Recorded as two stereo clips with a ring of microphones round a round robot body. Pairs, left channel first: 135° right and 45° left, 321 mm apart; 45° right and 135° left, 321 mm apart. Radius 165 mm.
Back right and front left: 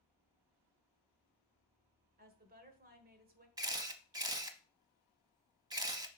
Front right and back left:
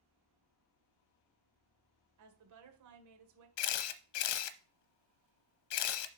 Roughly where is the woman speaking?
Left.